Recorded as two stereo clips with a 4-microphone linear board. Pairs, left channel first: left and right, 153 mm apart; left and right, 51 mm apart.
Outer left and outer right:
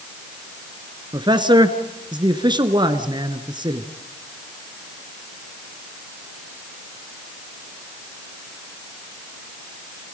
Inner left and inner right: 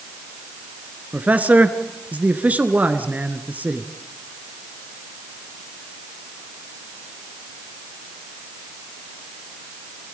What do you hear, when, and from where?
1.1 s a man speaking: 30° right (ahead or behind), 1.5 m